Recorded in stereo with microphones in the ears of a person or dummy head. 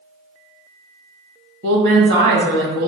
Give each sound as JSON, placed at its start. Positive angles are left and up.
{"t": 1.6, "sound": "a woman speaking", "side_deg": -70, "distance_m": 1.3}